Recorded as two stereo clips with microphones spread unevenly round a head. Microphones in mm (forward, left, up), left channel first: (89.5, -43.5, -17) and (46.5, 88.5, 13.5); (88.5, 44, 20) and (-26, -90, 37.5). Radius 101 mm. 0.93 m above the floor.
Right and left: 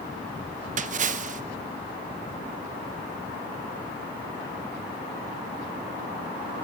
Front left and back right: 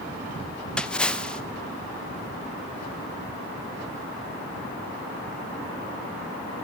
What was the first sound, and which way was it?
A splash, 125° left.